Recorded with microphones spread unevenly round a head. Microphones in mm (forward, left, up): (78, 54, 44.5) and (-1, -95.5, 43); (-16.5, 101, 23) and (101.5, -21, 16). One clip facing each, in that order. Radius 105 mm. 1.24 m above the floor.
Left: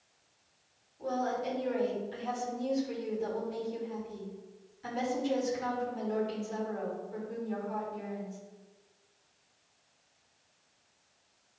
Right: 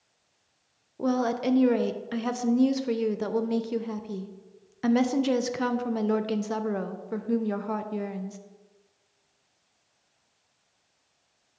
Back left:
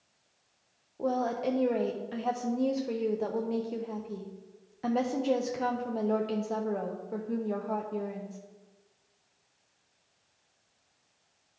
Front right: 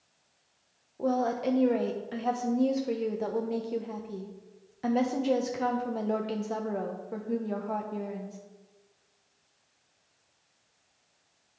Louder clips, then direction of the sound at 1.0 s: Right 7 dB, front right 2 dB; 135° right.